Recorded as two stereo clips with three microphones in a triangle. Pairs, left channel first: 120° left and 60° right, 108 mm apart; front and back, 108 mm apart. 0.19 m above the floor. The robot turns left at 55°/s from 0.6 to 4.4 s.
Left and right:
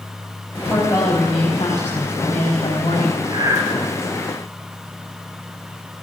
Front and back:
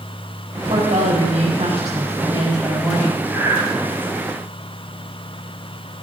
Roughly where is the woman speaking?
Behind right.